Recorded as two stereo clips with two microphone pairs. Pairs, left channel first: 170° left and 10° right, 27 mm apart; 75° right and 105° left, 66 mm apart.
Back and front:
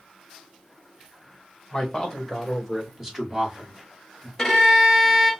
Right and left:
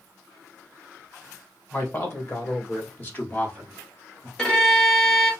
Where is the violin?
140° right, 1.2 m.